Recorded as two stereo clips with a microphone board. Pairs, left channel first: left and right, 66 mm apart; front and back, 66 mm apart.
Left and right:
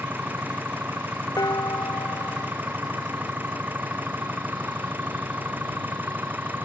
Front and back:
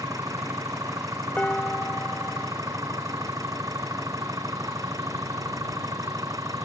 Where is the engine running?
150° right.